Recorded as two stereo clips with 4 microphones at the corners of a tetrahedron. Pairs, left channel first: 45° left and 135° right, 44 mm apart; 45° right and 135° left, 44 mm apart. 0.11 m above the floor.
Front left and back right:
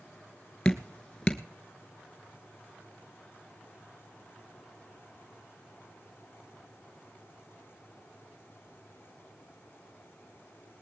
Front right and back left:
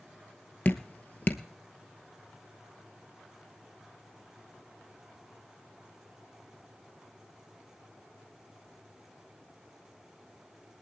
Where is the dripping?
15° right, 1.0 m.